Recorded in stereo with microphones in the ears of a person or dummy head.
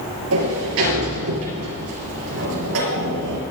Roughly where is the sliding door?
Right.